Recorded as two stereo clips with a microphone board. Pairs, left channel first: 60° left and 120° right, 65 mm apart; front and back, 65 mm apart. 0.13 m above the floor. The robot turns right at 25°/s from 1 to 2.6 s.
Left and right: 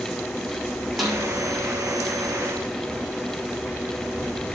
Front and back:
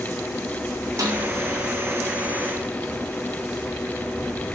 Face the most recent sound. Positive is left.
turn(degrees=-165)